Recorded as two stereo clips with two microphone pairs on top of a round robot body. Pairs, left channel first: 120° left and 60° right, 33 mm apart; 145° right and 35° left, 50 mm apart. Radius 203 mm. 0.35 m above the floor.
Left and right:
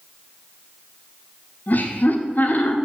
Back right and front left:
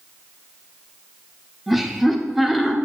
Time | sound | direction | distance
1.7 | laughter | 125° left | 1.8 m